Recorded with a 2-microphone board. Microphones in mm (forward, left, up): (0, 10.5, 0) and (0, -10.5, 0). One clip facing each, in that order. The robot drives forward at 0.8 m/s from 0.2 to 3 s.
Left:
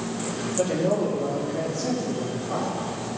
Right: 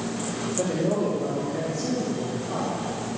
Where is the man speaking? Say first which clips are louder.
Left 2 dB; 15° left (ahead or behind), 3 m; by 2.7 s 10° left (ahead or behind), 5 m.